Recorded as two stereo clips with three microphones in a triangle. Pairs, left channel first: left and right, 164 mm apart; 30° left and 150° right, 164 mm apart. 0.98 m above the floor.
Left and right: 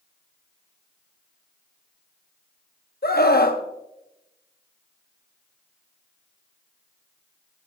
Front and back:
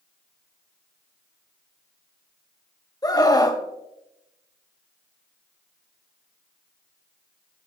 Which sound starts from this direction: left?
A scream, at 3.0 s.